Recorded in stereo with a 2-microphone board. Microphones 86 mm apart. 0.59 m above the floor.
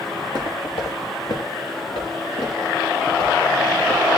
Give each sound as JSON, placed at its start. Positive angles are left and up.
{"t": 0.2, "sound": "footsteps", "side_deg": 65, "distance_m": 2.0}